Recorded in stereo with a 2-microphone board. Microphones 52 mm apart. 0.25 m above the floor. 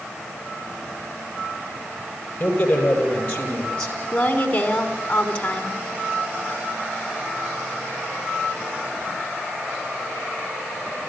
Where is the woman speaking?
25° left (ahead or behind), 2.5 m.